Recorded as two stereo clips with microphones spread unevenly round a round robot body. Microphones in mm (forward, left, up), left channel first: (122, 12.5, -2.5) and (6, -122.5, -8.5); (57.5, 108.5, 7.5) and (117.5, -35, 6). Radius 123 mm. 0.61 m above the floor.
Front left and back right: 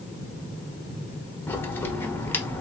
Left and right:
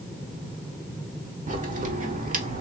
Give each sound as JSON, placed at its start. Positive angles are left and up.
{"t": 1.5, "sound": "a crack", "azimuth_deg": -30, "distance_m": 1.0}